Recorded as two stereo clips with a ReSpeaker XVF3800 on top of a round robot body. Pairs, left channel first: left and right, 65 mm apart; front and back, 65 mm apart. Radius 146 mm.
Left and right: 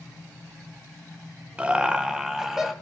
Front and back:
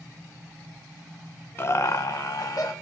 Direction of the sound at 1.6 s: 30° right.